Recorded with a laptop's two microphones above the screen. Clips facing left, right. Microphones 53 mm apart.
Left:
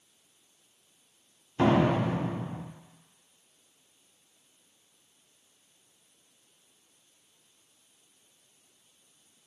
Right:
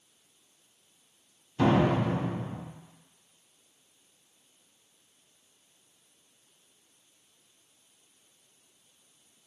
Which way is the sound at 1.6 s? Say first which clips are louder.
Even; 25° left (ahead or behind).